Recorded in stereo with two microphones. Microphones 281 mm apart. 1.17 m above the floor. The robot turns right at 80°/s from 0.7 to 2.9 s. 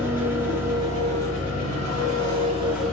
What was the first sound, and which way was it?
An engine running, 170° right.